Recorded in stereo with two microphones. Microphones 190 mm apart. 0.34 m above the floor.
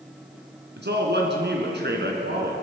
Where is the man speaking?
60° right (ahead or behind), 3.5 m.